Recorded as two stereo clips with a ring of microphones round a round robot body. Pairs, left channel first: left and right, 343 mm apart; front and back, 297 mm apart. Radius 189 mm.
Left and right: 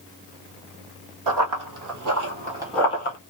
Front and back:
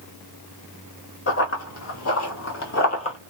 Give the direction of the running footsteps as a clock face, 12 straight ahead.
2 o'clock.